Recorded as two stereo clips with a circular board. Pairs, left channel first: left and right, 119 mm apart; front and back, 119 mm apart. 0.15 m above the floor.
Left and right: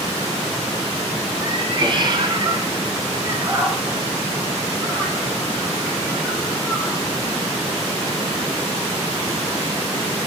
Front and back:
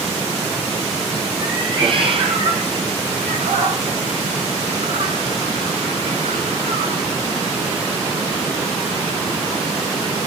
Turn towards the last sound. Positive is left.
turn(degrees=175)